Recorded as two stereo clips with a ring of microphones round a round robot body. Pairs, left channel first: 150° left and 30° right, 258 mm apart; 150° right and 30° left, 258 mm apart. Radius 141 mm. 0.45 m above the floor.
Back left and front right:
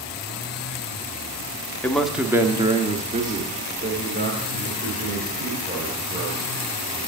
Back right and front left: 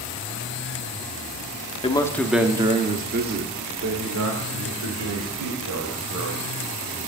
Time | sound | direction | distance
1.8 | a man speaking | 135° right | 0.7 m